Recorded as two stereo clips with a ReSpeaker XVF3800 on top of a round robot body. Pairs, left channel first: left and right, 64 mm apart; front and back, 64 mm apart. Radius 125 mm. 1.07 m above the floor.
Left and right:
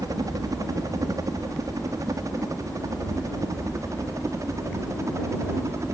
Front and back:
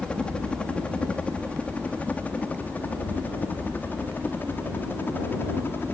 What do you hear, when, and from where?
0.0 s a helicopter: 75° right; by 6.0 s 55° right